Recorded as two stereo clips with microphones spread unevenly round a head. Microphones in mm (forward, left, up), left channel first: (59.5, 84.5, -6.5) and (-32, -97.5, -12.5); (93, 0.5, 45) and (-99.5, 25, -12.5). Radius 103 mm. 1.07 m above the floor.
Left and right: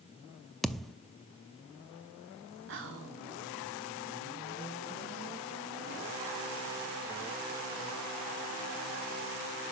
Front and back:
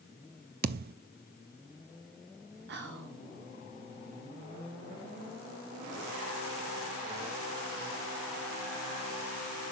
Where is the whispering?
150° right, 2 m.